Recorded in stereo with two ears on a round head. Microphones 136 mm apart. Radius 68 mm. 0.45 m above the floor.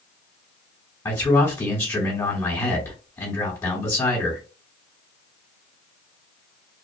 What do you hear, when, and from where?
1.1 s a man speaking: 20° left (ahead or behind), 1.5 m